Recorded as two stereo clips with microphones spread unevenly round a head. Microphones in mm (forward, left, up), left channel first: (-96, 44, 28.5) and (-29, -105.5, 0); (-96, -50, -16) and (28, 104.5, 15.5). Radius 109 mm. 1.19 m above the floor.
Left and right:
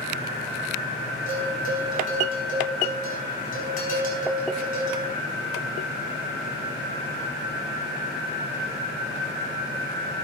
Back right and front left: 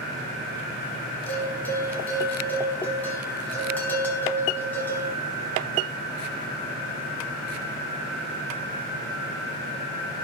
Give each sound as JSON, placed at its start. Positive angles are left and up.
{"t": 1.3, "sound": "a bell", "azimuth_deg": 150, "distance_m": 4.5}